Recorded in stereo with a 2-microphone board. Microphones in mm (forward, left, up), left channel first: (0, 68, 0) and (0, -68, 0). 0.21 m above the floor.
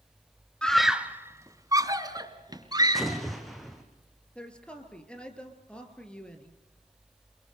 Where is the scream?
5° left (ahead or behind), 1.1 m; by 3.2 s 30° right (ahead or behind), 4 m.